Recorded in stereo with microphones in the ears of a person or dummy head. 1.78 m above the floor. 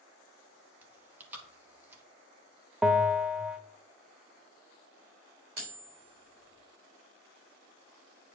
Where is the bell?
5° right (ahead or behind), 0.6 m.